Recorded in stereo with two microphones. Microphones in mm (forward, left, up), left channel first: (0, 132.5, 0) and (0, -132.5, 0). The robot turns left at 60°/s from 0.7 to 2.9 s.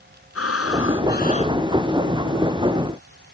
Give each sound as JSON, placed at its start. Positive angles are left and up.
{"t": 0.3, "sound": "breathing", "azimuth_deg": 70}